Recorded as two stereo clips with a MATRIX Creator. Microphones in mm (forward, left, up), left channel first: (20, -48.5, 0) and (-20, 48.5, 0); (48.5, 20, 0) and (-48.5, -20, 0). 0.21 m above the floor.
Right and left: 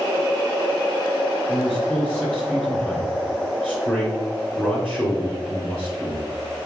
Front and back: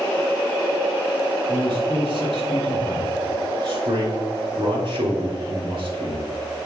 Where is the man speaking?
140° right, 2.5 m.